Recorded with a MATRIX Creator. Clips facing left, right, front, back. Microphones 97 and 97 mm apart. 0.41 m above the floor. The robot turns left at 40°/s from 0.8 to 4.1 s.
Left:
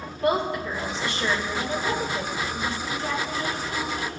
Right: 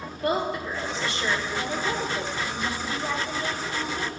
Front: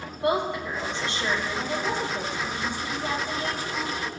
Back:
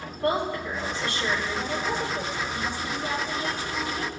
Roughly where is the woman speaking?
Left.